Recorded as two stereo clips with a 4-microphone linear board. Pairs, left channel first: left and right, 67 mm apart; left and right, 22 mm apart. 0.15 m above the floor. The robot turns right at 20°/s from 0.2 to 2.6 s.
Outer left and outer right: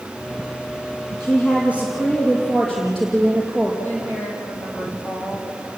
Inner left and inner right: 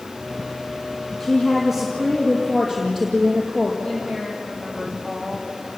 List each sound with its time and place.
1.2 s a woman speaking: 30° left (ahead or behind), 4 m; by 3.7 s 5° left (ahead or behind), 4 m
3.8 s a woman speaking: 30° left (ahead or behind), 6.5 m